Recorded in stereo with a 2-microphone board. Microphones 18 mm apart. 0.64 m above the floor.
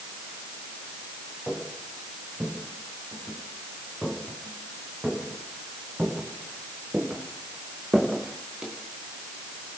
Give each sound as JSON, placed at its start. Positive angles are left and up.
{"t": 1.5, "sound": "footsteps", "side_deg": -85, "distance_m": 9.5}